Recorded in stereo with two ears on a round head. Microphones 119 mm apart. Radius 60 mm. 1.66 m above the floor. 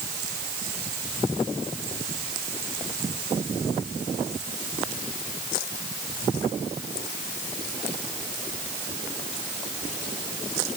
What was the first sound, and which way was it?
Only background noise.